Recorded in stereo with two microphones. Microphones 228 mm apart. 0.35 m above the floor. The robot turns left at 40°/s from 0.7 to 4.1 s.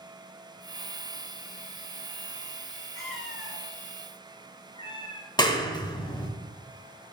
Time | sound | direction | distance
3.0 | a cat meowing | 65° left (ahead or behind) | 1.2 m
5.4 | a clap | 20° left (ahead or behind) | 0.9 m